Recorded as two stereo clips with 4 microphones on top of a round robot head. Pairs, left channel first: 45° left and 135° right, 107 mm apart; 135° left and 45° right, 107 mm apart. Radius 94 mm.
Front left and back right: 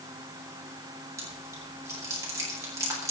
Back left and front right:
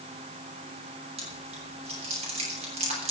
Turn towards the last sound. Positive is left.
turn(degrees=-75)